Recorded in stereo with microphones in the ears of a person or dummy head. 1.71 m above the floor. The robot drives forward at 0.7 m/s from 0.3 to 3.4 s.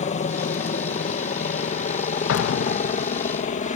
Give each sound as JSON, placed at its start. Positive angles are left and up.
{"t": 0.0, "sound": "a helicopter", "side_deg": 40}
{"t": 2.3, "sound": "an explosion", "side_deg": 75}